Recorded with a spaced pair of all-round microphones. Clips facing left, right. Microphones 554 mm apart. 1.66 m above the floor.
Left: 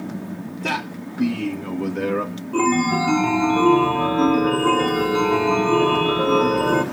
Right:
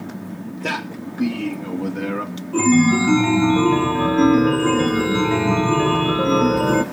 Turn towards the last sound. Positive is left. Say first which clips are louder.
# right 5 dB
turn(degrees=-40)  # may be behind; listen again after turning